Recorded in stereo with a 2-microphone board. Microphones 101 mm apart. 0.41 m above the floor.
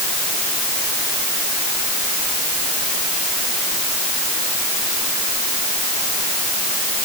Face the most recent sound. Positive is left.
No sound to turn to.